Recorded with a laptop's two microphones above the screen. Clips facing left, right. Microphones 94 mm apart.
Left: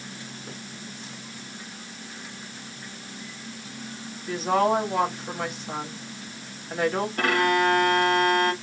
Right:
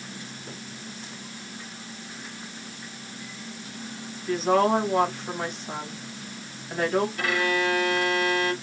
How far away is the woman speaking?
About 1.2 m.